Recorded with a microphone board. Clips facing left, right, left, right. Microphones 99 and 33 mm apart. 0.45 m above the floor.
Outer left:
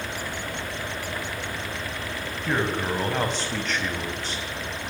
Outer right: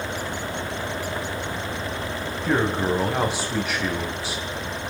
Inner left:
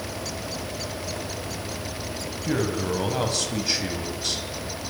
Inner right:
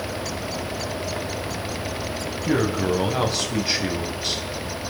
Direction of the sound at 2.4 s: 10° right (ahead or behind).